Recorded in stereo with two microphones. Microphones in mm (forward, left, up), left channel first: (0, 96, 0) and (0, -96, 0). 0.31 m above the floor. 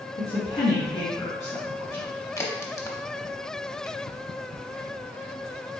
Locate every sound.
0.2 s a woman speaking: 30° left (ahead or behind), 1.6 m; by 2.1 s 15° left (ahead or behind), 2.5 m
2.4 s a crack: 15° left (ahead or behind), 0.7 m